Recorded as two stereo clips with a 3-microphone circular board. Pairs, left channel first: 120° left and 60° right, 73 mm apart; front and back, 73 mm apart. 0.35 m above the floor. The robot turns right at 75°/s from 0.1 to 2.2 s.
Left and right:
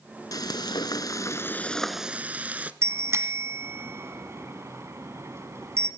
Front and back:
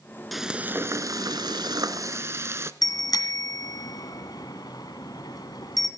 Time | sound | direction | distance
0.3 | frying | 90° left | 0.7 m
2.8 | a bicycle bell | 15° right | 2 m